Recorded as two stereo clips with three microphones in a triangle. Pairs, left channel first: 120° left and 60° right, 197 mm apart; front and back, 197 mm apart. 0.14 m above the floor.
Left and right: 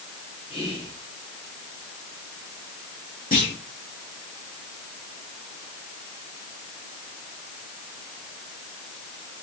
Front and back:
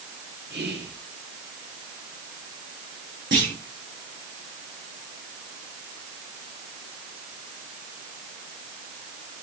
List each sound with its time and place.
0.5 s whispering: straight behind, 2.5 m
3.3 s a clunk: 160° left, 5.5 m